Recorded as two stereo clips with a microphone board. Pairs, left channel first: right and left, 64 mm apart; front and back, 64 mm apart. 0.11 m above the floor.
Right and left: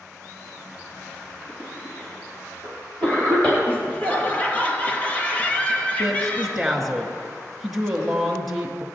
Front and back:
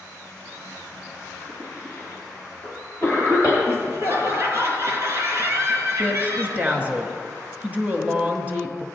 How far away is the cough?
About 3.5 m.